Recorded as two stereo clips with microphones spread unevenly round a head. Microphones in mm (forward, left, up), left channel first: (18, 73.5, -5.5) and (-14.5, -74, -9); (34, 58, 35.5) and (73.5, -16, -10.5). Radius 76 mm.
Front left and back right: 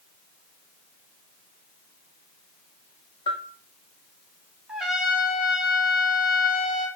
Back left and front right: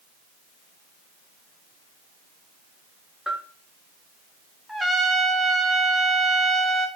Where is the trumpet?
20° right, 0.6 m.